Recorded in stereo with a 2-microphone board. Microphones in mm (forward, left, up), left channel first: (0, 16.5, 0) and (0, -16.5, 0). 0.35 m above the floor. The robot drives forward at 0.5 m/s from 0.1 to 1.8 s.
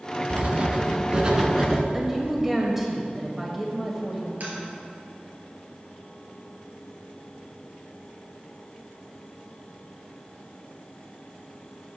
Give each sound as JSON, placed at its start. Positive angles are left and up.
{"t": 0.3, "sound": "writing", "side_deg": -50, "distance_m": 0.7}
{"t": 1.9, "sound": "a woman speaking", "side_deg": -5, "distance_m": 1.6}
{"t": 4.4, "sound": "tapping", "side_deg": -60, "distance_m": 3.0}